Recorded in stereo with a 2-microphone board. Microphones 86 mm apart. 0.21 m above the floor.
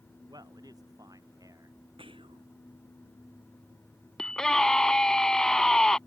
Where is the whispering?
85° right.